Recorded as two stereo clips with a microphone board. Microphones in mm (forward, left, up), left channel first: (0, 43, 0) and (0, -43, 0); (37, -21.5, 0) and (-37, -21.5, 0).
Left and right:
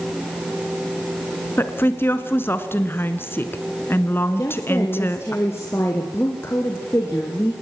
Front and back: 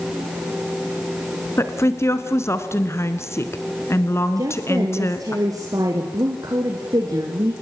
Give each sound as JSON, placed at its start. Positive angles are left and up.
{"t": 1.6, "sound": "a woman speaking", "azimuth_deg": 35, "distance_m": 1.9}
{"t": 4.4, "sound": "a woman speaking", "azimuth_deg": 150, "distance_m": 3.0}